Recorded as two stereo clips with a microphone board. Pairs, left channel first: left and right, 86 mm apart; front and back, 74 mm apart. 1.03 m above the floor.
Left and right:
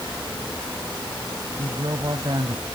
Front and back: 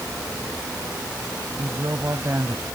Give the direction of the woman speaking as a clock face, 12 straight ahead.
4 o'clock.